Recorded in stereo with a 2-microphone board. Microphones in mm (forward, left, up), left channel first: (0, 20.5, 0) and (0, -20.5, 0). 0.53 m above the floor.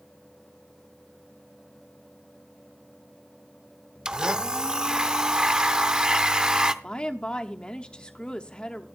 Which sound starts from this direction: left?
A woman speaking, at 6.8 s.